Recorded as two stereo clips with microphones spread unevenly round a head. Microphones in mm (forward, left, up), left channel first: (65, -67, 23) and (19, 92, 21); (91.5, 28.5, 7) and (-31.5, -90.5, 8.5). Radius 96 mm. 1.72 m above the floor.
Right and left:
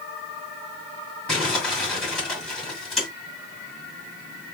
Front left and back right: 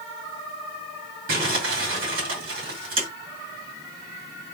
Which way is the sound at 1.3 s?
160° right.